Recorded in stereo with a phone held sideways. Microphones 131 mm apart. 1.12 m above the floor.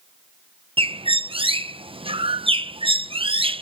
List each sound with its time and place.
0.8 s a bird: 40° right (ahead or behind)